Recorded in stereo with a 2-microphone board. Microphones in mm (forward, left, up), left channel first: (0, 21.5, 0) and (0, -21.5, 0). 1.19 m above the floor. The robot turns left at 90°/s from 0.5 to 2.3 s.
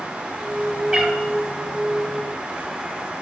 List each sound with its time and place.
0.9 s a cat meowing: 20° right (ahead or behind), 1.7 m; by 1.2 s centre (ahead or behind), 1.7 m